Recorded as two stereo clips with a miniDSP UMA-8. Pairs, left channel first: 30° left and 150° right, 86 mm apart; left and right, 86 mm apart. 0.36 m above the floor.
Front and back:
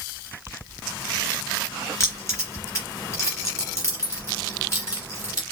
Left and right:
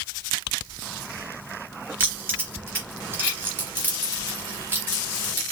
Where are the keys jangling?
25° right, 4 m.